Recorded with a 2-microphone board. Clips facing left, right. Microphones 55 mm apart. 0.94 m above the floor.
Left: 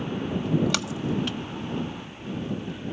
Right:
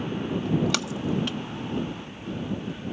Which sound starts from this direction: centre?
A splash, at 0.3 s.